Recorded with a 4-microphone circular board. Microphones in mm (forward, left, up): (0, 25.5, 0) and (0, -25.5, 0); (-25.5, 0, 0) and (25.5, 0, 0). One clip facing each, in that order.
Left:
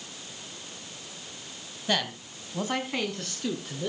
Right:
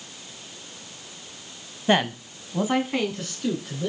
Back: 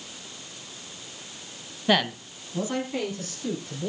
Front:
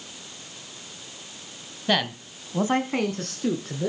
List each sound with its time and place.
1.9 s a man speaking: 105° right, 1.0 m; by 3.9 s 5° left, 2.5 m